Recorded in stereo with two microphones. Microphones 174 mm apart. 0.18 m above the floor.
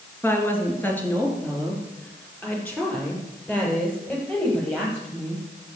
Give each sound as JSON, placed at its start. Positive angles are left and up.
{"t": 0.2, "sound": "a woman speaking", "side_deg": 10, "distance_m": 3.0}